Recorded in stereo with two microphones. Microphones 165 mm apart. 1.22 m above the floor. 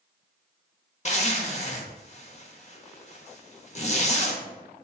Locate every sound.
1.1 s a zipper: 45° left (ahead or behind), 0.7 m